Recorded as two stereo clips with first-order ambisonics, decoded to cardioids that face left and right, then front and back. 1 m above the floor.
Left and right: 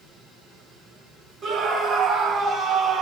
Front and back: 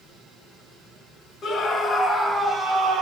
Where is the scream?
50° right, 1.0 m; by 3.0 s 145° right, 0.9 m.